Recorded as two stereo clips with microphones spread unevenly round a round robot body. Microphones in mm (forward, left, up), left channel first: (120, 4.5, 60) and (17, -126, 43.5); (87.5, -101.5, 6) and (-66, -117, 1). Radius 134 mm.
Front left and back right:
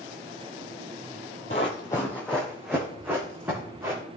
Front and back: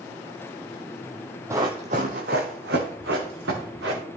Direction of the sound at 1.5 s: 110° left.